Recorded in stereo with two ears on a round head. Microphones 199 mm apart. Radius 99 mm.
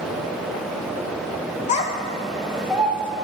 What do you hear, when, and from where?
1.7 s a child speaking: 35° left (ahead or behind), 1.2 m; by 3.1 s 10° right (ahead or behind), 1.9 m